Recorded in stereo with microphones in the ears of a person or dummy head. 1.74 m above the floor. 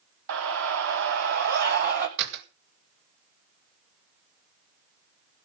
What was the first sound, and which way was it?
A scream, 80° right.